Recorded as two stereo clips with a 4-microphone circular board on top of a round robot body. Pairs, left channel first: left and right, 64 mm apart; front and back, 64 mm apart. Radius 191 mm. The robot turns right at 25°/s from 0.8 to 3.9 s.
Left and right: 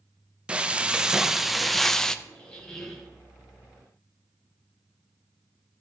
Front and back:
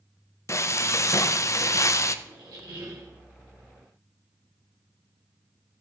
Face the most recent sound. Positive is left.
turn(degrees=-160)